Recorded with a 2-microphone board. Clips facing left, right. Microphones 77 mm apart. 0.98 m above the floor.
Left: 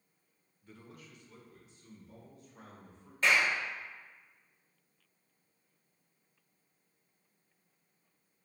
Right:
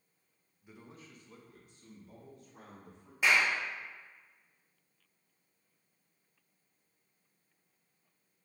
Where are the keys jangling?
No keys jangling in this recording.